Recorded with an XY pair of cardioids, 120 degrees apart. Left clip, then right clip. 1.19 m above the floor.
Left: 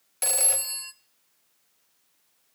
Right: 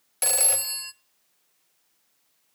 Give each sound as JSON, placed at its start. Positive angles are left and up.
{"t": 0.2, "sound": "a phone ringing", "azimuth_deg": -20, "distance_m": 0.5}